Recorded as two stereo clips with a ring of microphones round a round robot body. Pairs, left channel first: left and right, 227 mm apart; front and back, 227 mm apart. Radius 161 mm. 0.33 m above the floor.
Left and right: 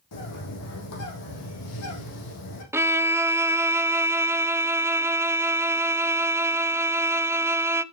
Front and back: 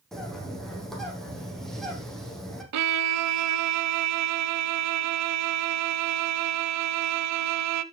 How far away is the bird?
About 5 m.